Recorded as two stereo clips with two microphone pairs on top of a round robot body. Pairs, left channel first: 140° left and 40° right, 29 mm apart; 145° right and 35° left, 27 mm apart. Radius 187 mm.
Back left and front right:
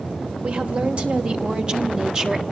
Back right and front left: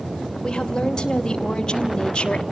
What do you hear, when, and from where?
0.4 s a woman speaking: 75° right, 3.5 m; by 2.4 s 100° right, 1.8 m